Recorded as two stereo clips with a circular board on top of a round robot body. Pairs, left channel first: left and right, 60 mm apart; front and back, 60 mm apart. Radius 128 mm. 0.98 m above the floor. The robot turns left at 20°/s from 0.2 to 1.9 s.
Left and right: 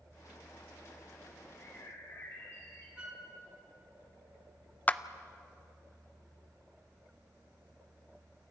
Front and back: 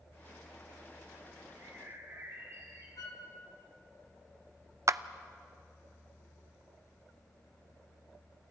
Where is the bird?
145° left, 4 m; by 2.9 s 135° left, 4 m.